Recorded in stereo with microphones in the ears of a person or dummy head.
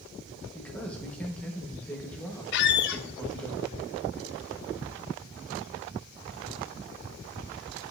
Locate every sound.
0.5 s a man speaking: 5° left (ahead or behind), 1.1 m
2.5 s a squeak: 60° left (ahead or behind), 0.5 m